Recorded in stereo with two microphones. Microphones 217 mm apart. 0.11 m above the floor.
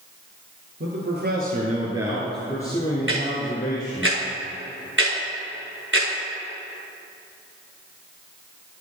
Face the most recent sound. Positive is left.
turn(degrees=-60)  # may be behind; listen again after turning